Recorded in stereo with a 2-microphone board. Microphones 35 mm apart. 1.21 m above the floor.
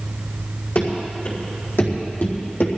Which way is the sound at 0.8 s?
75° left (ahead or behind).